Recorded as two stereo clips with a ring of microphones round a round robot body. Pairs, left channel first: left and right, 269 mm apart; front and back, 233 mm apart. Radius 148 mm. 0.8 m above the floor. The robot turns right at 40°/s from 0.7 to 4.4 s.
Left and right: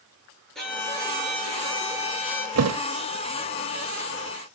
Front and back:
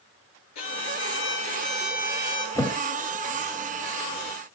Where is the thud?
80° right, 0.7 m; by 2.8 s 70° right, 0.7 m.